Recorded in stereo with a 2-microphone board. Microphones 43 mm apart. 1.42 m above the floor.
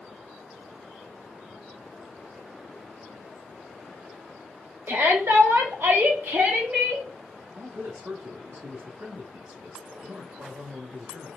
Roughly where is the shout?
Right.